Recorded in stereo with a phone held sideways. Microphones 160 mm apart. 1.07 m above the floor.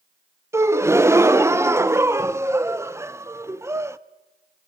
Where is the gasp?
15° right (ahead or behind), 0.6 m.